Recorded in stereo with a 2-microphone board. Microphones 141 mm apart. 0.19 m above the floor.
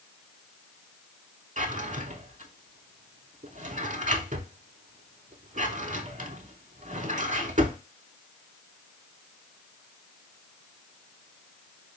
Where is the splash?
No splash in this recording.